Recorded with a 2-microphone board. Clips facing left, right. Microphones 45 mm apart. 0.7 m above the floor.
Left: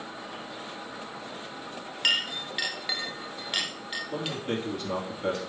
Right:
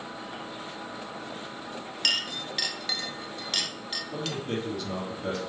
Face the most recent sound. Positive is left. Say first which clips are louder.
# even
turn(degrees=30)  # may be behind; listen again after turning